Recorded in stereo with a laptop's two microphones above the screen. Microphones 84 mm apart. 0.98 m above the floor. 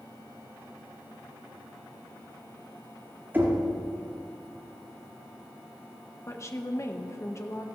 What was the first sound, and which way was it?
Knocking, 20° right (ahead or behind).